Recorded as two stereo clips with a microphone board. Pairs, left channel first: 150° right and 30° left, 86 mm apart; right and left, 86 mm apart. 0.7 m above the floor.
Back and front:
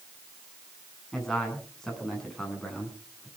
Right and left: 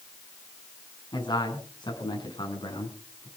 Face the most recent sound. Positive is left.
turn(degrees=-65)